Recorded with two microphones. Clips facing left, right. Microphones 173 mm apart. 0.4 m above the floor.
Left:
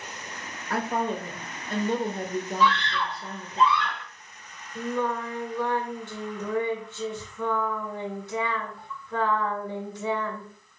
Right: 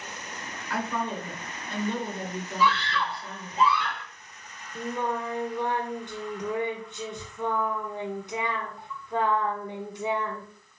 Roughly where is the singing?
Centre.